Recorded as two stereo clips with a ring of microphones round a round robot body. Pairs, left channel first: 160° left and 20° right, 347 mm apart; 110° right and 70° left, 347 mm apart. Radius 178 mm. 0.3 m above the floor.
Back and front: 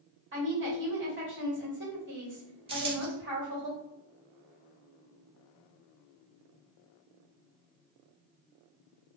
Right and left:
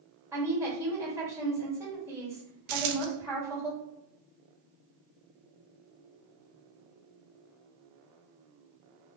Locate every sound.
0.3 s a woman speaking: 10° right, 1.5 m
2.7 s a dropped coin: 55° left, 0.6 m